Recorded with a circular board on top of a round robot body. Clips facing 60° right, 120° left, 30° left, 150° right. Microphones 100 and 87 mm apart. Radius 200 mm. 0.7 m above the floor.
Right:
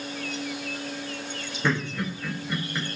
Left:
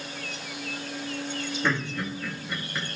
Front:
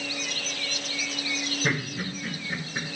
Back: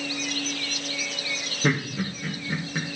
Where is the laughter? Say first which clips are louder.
Right 3 dB, back 6 dB; 150° right, 4 m.